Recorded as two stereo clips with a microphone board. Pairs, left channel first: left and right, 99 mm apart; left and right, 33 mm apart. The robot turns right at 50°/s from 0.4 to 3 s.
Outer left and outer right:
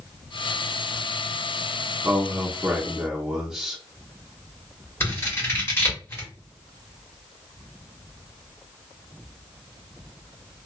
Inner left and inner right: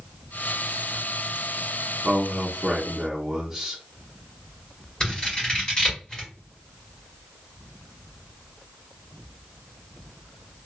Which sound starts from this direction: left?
Scissors, at 5.0 s.